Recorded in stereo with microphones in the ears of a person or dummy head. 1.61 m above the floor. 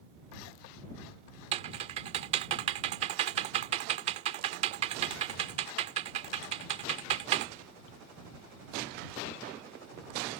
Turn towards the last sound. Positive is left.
turn(degrees=-40)  # may be behind; listen again after turning